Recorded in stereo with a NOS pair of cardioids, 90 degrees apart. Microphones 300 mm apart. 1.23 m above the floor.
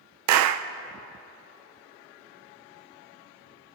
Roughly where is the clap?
Right.